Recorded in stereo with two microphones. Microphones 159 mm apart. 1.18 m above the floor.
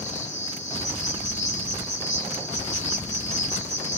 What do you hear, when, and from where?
0.0 s an insect: 45° left (ahead or behind), 1.5 m